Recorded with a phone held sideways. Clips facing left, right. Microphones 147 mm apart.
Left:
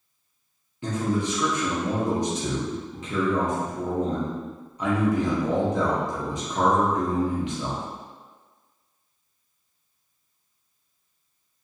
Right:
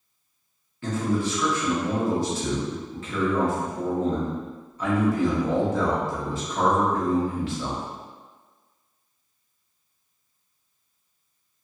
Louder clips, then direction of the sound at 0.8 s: Even; 20° left (ahead or behind).